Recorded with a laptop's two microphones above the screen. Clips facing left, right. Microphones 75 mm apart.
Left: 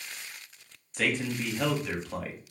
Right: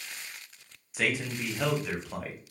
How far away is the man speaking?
About 0.6 m.